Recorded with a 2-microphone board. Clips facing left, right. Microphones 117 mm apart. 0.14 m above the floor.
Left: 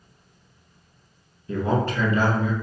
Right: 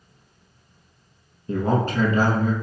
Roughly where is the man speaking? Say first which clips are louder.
Right 1 dB; right.